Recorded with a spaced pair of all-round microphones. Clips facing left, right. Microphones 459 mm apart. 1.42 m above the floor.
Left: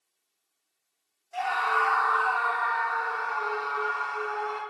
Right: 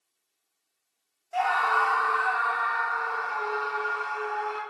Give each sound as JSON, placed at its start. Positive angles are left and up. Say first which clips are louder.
{"t": 1.3, "sound": "a scream", "louder": "right 2 dB", "side_deg": -70, "distance_m": 0.8}